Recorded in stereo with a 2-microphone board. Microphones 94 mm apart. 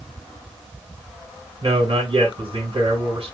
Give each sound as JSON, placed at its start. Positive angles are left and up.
{"t": 1.6, "sound": "a man speaking", "side_deg": -60, "distance_m": 2.0}